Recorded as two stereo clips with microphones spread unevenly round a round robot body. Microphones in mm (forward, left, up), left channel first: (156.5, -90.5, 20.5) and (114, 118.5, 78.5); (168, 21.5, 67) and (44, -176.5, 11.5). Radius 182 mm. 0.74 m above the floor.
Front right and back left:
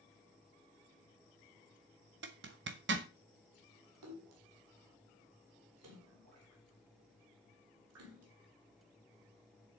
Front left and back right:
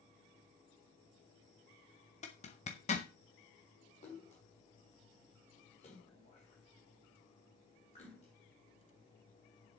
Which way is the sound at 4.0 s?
130° left.